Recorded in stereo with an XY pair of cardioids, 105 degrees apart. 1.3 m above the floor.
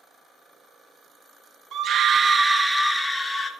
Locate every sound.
1.7 s a scream: 65° right, 0.9 m; by 3.5 s 15° left, 1.4 m